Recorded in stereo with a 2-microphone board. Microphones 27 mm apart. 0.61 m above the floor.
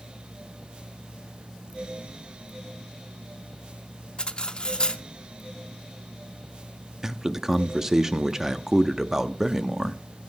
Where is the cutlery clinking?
35° left (ahead or behind), 0.6 m.